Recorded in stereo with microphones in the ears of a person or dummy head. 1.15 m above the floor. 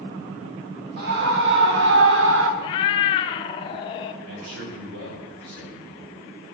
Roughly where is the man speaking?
Right.